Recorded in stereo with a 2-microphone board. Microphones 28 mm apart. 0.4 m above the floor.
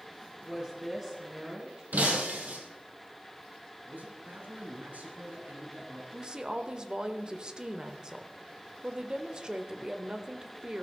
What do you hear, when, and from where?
0.4 s a woman speaking: 15° right (ahead or behind), 4.5 m
1.9 s breaking glass: 80° right, 4 m
3.9 s a man speaking: 75° right (ahead or behind), 4 m
6.1 s a woman speaking: 25° right (ahead or behind), 1.3 m